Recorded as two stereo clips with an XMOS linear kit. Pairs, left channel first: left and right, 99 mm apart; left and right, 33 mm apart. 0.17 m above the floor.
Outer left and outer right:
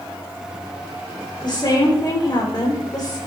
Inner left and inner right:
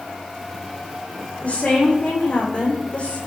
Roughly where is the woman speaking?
Left.